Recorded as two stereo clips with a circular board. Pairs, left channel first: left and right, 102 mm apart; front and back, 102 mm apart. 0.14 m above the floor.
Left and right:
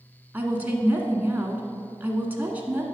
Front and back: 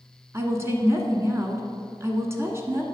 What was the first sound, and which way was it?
A woman speaking, 145° right.